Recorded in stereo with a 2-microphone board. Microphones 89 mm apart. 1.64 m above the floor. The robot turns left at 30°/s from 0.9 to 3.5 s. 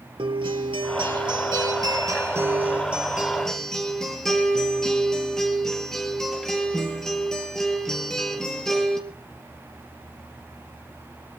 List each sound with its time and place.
0.2 s a guitar: 110° right, 3.5 m; by 9.0 s 175° left, 3.5 m